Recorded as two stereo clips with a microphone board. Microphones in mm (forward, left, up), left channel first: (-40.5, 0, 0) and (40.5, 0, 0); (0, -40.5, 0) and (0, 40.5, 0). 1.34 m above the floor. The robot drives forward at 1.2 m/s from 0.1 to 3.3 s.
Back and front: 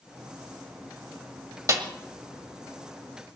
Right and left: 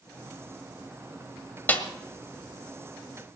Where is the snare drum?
30° right, 1.6 m; by 1.8 s 35° right, 1.4 m.